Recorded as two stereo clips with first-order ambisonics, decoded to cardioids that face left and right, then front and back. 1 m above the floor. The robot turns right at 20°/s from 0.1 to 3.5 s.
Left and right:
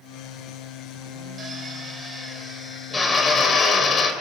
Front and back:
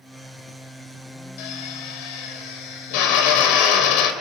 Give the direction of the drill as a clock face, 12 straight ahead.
1 o'clock.